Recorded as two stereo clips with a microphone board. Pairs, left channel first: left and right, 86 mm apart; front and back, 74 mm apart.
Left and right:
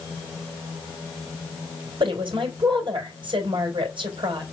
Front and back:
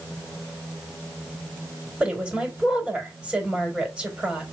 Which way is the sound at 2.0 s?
100° right.